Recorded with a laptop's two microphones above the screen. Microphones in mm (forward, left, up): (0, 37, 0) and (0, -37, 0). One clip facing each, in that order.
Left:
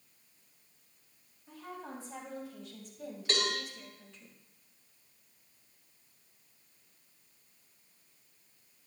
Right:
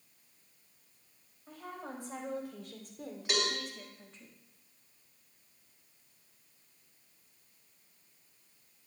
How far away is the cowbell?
About 3.5 m.